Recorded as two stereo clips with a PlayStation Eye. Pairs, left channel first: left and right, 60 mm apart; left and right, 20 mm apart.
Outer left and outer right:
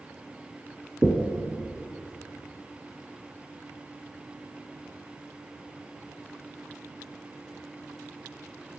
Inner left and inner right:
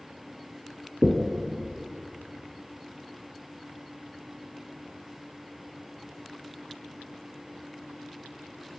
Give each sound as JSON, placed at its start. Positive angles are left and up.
{"t": 1.0, "sound": "knocking", "side_deg": -20, "distance_m": 1.4}